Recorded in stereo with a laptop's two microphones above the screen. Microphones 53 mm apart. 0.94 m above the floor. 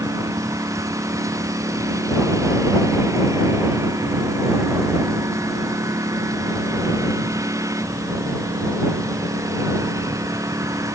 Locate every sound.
0.0 s a lawn mower: 75° right (ahead or behind)